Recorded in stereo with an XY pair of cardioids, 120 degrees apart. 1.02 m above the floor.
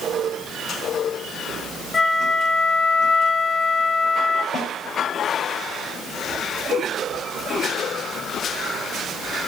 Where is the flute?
30° left, 2.5 m.